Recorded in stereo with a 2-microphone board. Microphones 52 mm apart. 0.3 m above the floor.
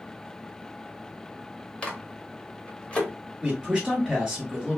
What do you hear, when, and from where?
1.8 s a microwave: 20° left (ahead or behind), 0.7 m
3.4 s a man speaking: 10° right (ahead or behind), 1.6 m